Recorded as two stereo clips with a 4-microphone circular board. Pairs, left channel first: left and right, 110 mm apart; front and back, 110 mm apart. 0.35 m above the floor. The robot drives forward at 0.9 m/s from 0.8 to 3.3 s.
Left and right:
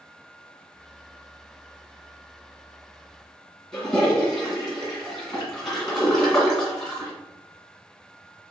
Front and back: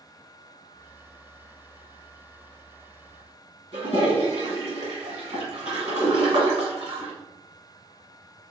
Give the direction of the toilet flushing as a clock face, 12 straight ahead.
6 o'clock.